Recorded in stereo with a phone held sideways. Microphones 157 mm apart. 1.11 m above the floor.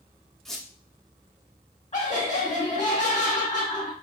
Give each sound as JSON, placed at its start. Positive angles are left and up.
{"t": 0.5, "sound": "a squeak", "side_deg": 0, "distance_m": 0.6}
{"t": 1.9, "sound": "laughter", "side_deg": 45, "distance_m": 1.6}